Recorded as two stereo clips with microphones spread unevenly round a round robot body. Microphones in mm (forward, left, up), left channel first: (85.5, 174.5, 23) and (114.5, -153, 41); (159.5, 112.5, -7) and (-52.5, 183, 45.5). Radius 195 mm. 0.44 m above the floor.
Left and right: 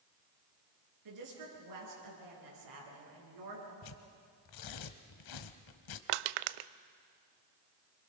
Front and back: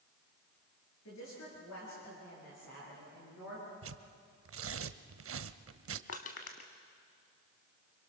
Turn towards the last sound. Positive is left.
turn(degrees=-80)